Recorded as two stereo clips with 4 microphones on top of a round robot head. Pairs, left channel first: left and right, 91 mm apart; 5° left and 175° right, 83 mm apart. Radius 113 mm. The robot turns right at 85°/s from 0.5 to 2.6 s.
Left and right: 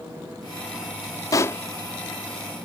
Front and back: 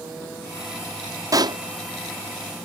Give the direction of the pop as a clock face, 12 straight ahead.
7 o'clock.